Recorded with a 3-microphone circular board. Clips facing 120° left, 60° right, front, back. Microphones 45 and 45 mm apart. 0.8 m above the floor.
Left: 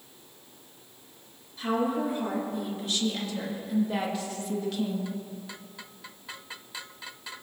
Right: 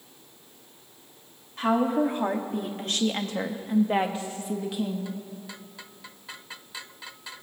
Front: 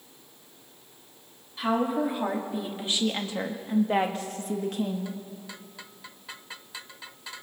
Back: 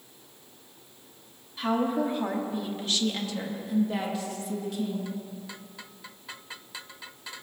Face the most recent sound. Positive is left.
turn(degrees=25)